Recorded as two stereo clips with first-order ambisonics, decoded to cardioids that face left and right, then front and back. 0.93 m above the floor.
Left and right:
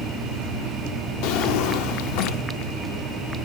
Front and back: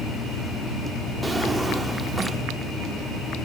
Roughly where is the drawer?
Left.